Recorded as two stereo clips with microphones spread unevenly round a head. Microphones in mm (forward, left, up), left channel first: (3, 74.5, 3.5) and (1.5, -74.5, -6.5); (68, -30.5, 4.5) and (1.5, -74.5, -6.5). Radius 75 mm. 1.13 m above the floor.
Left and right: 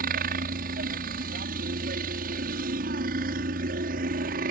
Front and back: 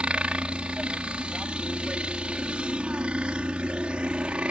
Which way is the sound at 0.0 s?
70° right.